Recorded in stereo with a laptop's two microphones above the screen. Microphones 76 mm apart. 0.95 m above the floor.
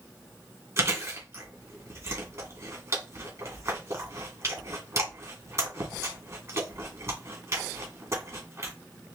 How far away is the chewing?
About 2 m.